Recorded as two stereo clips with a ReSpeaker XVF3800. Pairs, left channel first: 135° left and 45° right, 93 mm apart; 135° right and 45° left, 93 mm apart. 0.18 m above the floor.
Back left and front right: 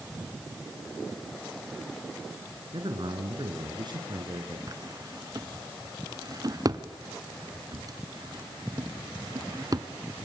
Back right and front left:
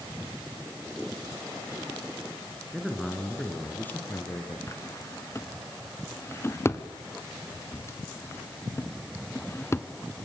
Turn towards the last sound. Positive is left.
turn(degrees=-80)